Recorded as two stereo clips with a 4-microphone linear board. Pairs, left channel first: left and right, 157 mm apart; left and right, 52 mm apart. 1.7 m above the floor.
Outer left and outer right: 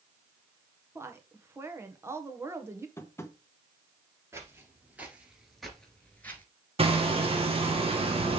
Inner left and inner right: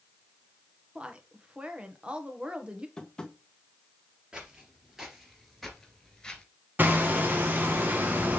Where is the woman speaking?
15° right (ahead or behind), 1.4 m.